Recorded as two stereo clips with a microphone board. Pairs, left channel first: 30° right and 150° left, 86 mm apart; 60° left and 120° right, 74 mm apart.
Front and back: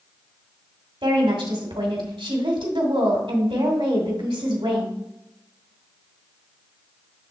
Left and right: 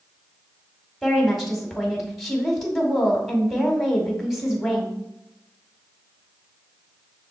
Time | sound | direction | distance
1.0 | a woman speaking | 150° left | 2 m